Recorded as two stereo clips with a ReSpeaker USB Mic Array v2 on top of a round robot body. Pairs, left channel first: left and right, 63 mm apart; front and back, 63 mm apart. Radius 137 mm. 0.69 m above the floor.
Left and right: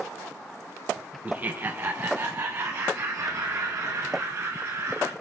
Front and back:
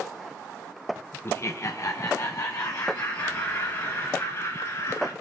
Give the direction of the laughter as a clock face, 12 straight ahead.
1 o'clock.